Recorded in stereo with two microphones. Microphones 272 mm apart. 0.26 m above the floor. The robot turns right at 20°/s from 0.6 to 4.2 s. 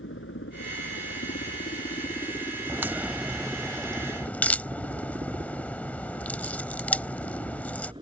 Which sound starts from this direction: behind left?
A helicopter, at 0.0 s.